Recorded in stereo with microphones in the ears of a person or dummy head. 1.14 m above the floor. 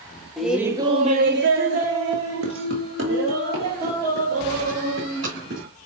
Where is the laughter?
Centre (ahead or behind), 0.7 m; by 5.7 s 60° right (ahead or behind), 3 m.